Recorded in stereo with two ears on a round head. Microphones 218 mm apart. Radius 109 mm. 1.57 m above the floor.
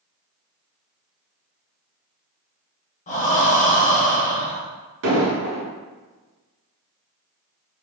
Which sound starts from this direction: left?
Breathing, at 3.1 s.